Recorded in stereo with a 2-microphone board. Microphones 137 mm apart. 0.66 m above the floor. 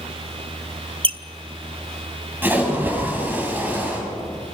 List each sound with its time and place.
1.0 s a squeak: 40° right (ahead or behind), 0.6 m
2.4 s a splash: 15° right (ahead or behind), 6 m